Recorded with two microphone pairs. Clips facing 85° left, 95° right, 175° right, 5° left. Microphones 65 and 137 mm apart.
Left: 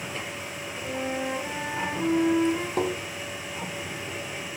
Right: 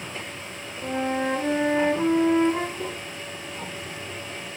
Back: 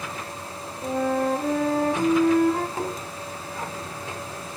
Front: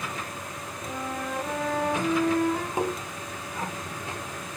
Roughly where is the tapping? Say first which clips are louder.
Left 6 dB, front 2 dB; left.